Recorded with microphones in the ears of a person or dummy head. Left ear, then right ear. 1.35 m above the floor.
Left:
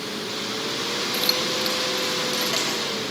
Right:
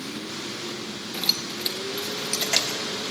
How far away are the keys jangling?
About 0.8 m.